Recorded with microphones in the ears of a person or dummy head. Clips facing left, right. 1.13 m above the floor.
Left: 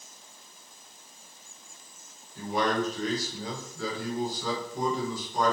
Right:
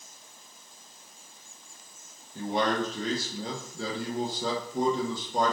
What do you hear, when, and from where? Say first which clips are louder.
2.4 s a man speaking: even; 20° right (ahead or behind), 0.8 m